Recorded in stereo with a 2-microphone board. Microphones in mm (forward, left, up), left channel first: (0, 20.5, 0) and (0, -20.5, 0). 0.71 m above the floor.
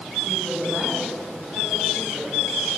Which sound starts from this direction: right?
A woman speaking, at 0.2 s.